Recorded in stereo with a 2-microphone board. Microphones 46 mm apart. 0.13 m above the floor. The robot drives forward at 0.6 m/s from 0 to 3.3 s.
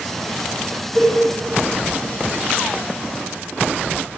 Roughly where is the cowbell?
Centre.